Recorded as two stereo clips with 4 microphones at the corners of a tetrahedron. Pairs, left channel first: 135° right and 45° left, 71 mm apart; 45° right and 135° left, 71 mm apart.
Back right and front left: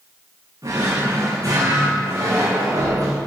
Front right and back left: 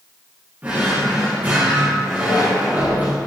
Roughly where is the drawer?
Left.